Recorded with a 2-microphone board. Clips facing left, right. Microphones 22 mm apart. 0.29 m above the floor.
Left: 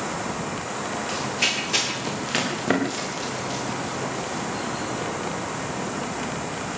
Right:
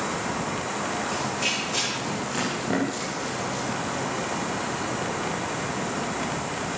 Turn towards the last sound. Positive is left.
turn(degrees=65)  # may be behind; listen again after turning